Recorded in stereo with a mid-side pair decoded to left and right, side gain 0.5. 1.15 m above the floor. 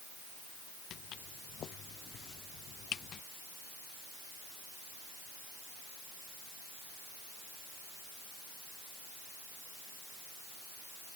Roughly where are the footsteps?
Ahead left.